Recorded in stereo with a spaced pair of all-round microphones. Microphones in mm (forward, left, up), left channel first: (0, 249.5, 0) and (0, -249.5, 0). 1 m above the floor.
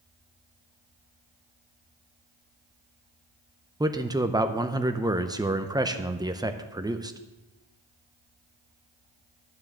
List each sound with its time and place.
3.8 s a man speaking: 10° right (ahead or behind), 0.6 m